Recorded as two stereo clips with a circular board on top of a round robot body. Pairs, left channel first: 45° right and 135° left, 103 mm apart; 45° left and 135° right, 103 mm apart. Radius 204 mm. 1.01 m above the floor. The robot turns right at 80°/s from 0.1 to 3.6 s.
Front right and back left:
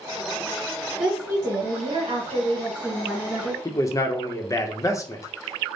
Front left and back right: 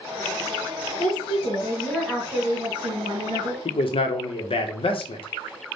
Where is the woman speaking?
55° left, 1.8 m; by 3.5 s 100° right, 1.8 m.